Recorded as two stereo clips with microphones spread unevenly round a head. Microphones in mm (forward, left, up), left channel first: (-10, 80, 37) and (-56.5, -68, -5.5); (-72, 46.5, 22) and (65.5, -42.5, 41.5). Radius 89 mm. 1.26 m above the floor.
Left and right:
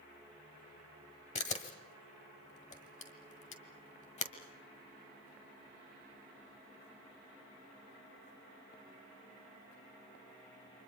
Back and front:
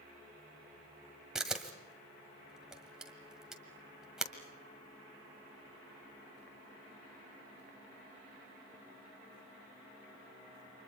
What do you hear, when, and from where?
1.4 s a camera shutter: 50° left, 1.7 m